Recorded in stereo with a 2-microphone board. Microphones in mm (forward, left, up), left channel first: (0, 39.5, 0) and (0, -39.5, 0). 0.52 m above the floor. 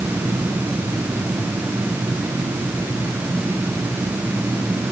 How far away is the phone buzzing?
No phone buzzing in this recording.